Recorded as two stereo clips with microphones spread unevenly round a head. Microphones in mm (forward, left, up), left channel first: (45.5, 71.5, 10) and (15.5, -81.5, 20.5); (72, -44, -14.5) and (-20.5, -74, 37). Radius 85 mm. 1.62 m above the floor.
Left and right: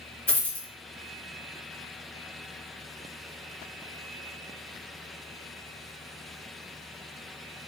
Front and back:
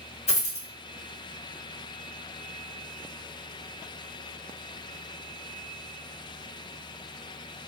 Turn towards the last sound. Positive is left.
turn(degrees=-5)